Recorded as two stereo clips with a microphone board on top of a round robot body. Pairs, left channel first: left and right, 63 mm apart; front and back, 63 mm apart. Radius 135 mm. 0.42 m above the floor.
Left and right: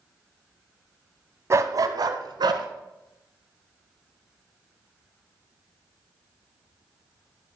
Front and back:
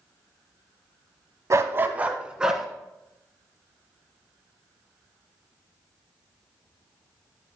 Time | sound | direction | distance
1.5 | a dog barking | 140° right | 1.0 m